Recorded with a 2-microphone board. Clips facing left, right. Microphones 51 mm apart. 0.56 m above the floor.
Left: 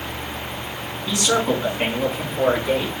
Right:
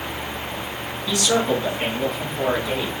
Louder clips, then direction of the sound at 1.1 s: Even; 25° left (ahead or behind).